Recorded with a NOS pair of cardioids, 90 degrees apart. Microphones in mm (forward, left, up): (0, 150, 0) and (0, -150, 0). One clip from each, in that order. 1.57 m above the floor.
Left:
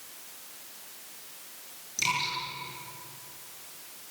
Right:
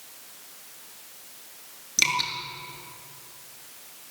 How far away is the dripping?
About 9 m.